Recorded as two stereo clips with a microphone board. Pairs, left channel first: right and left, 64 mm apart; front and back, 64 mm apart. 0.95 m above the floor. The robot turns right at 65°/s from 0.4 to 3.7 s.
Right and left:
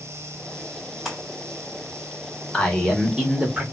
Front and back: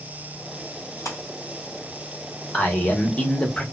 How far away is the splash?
About 1.7 m.